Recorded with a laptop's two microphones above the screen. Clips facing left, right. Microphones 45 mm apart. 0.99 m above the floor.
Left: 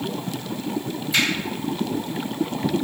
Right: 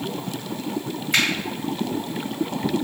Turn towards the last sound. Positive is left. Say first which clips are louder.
# right 1 dB
turn(degrees=-55)  # may be behind; listen again after turning